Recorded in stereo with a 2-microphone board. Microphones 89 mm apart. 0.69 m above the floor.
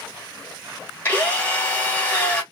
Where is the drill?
20° left (ahead or behind), 1.9 m.